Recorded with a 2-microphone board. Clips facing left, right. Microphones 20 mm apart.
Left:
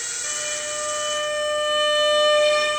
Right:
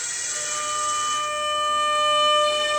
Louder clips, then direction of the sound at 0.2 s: Even; 50° left (ahead or behind).